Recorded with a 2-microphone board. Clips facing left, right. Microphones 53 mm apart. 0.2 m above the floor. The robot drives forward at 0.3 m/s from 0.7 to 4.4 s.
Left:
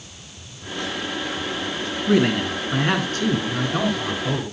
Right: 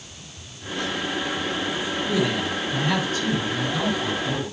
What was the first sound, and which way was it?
A man speaking, 55° left (ahead or behind).